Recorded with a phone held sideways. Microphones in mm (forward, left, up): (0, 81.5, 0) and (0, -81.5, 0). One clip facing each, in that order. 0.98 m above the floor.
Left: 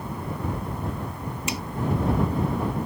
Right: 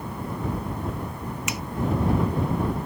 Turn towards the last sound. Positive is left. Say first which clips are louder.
# left 3 dB
turn(degrees=30)  # may be behind; listen again after turning